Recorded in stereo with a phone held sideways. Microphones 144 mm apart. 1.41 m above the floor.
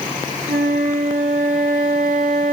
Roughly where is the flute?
Right.